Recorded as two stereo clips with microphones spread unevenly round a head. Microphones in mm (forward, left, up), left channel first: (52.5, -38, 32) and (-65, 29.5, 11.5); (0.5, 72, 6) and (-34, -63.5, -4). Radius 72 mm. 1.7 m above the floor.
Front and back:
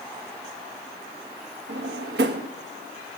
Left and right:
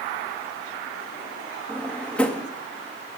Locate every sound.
1.7 s a drawer: 155° left, 1.7 m